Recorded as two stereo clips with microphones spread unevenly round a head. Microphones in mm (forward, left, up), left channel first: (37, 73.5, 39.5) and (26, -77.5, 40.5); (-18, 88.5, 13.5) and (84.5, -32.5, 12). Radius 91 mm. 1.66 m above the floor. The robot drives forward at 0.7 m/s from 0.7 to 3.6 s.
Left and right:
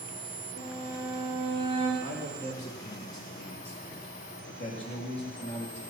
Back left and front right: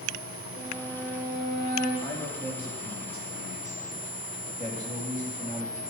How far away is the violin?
About 3.5 m.